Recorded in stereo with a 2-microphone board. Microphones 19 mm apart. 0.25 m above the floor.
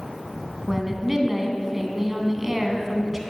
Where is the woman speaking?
15° right (ahead or behind), 2.5 m.